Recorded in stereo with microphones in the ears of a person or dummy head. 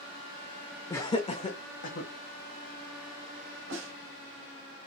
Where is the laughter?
10° left (ahead or behind), 0.6 m; by 2.1 s 40° left (ahead or behind), 1.3 m.